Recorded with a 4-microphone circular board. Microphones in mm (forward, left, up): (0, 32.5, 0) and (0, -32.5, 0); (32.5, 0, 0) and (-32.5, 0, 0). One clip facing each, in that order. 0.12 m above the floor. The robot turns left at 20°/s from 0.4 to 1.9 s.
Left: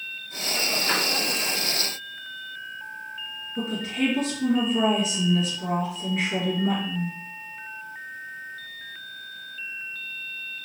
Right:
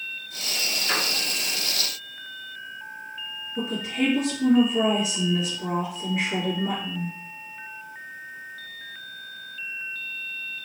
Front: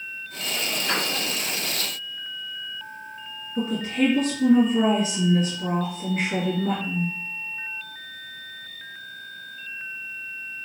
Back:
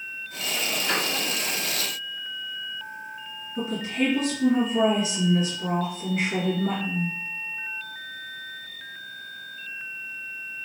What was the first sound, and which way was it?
A piano, 70° left.